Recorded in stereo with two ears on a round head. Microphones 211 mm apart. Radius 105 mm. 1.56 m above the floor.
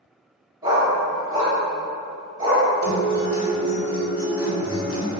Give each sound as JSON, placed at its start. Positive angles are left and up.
{"t": 0.6, "sound": "a dog barking", "side_deg": -15, "distance_m": 1.3}
{"t": 2.8, "sound": "a guitar", "side_deg": 60, "distance_m": 1.2}